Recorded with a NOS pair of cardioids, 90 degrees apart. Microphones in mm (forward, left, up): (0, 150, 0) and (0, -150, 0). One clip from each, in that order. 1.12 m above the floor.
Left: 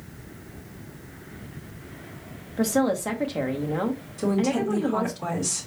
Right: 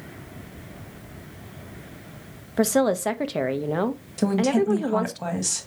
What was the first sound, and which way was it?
A woman speaking, 35° right.